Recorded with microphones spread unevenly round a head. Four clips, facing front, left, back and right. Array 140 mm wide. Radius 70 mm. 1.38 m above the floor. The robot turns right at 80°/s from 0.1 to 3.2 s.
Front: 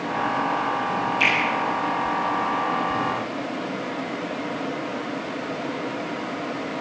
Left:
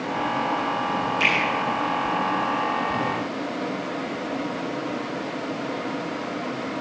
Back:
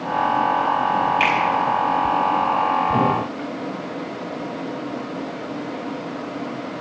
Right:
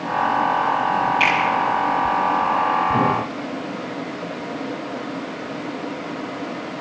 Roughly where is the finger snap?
Behind.